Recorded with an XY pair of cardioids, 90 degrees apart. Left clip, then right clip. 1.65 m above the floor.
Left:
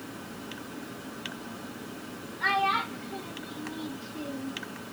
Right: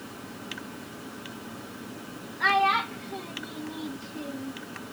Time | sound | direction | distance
2.4 | a child speaking | 50° right | 2.5 m